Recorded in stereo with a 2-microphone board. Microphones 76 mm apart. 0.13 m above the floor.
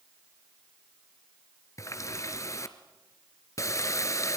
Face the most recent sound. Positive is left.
turn(degrees=40)  # may be behind; listen again after turning